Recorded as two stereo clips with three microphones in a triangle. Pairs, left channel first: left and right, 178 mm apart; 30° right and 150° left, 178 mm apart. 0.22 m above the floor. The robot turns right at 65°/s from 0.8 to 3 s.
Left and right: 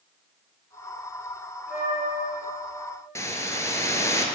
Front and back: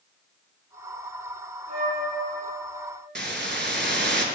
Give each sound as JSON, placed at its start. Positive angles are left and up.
{"t": 1.7, "sound": "a flute", "azimuth_deg": 100, "distance_m": 2.5}
{"t": 3.1, "sound": "a hiss", "azimuth_deg": 160, "distance_m": 0.7}